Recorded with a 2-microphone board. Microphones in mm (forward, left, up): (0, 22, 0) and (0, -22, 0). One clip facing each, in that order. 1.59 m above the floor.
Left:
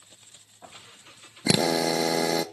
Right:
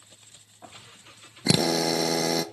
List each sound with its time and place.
1.5 s a drill: 15° left (ahead or behind), 0.9 m